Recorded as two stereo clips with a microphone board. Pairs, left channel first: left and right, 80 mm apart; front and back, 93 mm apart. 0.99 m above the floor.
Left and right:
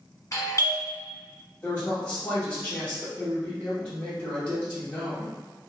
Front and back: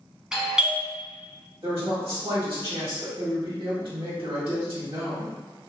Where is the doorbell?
105° left, 0.9 m.